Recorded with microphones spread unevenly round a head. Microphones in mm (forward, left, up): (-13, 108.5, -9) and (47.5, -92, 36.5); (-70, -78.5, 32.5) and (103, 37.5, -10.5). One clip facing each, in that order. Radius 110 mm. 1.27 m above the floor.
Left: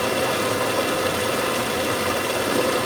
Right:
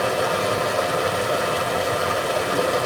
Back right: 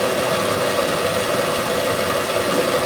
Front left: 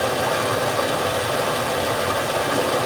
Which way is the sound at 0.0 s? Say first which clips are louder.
Even, back right 3 dB; 160° left.